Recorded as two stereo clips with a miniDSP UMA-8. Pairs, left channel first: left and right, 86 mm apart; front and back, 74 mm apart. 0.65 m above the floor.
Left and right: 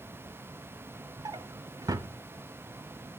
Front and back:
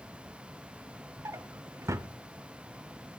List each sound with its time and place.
1.2 s a drawer: 130° right, 0.5 m